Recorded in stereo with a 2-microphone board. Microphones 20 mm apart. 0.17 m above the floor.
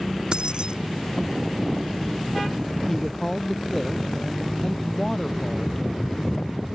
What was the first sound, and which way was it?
Keys jangling, 45° right (ahead or behind).